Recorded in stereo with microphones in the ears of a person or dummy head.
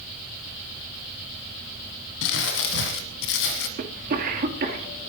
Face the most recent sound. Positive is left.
turn(degrees=-50)  # may be behind; listen again after turning